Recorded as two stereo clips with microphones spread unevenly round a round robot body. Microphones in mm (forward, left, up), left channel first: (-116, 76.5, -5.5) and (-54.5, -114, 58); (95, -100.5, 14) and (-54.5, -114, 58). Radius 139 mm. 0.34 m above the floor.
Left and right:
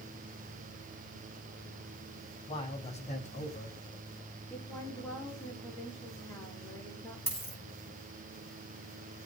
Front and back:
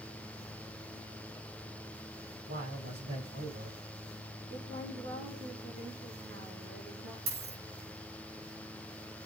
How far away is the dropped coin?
About 7.5 m.